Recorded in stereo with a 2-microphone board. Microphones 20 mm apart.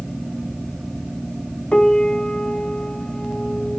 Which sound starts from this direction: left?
A piano, at 1.7 s.